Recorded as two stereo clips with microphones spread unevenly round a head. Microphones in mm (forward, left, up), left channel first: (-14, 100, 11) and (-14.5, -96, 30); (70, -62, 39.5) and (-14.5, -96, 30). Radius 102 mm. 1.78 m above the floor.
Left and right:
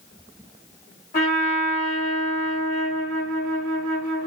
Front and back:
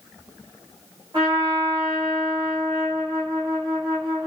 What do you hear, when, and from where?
1.1 s a trumpet: 135° left, 1.5 m